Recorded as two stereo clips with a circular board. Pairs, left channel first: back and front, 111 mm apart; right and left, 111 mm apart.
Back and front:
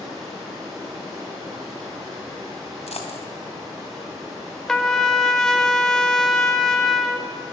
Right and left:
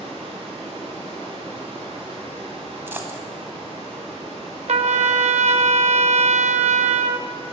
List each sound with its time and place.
0.0 s running water: 55° left, 7.5 m
2.9 s a dropped coin: 160° left, 2 m
4.7 s a trumpet: 95° left, 1.0 m